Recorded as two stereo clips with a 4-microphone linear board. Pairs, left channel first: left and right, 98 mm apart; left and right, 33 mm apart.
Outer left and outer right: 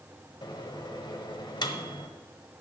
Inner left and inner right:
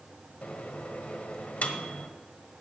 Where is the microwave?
50° left (ahead or behind), 1.2 m.